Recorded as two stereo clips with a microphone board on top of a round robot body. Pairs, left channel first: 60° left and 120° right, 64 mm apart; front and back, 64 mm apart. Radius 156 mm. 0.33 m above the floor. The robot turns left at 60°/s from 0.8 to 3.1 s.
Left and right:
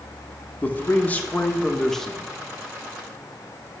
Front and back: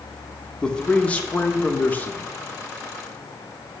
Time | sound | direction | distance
0.6 | a man speaking | 55° left | 0.9 m